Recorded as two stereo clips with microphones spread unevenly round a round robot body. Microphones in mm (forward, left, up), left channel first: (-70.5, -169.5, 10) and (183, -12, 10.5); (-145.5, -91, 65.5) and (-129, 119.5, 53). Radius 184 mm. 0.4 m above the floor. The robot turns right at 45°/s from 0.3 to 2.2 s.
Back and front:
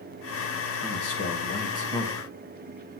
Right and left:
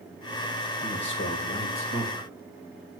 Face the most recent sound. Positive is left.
turn(degrees=-70)